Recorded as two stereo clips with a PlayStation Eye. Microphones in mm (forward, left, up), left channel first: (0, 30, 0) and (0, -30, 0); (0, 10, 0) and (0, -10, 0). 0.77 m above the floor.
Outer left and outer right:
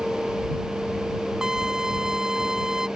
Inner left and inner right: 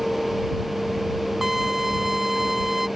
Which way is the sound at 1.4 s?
10° right (ahead or behind).